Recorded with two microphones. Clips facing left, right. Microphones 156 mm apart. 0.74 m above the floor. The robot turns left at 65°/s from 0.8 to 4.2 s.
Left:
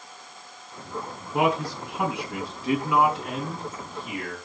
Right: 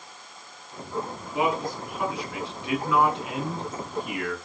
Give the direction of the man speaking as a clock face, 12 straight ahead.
8 o'clock.